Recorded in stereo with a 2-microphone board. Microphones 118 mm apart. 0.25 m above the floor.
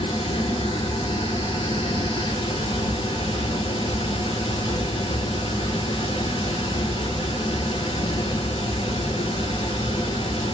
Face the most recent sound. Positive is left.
turn(degrees=45)  # may be behind; listen again after turning